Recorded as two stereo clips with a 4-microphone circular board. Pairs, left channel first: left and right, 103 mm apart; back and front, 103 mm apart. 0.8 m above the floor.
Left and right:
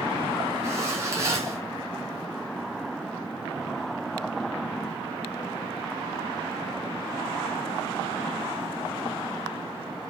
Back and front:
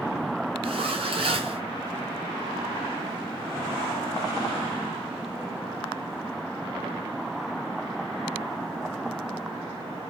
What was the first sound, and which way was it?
A zipper, 30° right.